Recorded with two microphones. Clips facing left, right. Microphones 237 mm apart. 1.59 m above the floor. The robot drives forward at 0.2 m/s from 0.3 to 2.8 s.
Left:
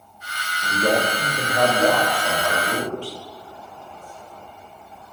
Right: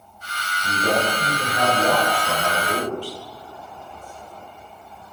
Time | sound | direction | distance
0.6 | a man speaking | 75° left (ahead or behind) | 4 m